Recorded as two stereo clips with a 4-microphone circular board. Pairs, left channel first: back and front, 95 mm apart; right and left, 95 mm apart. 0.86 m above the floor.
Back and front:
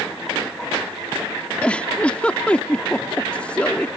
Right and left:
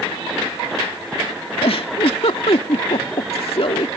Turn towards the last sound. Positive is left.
turn(degrees=-105)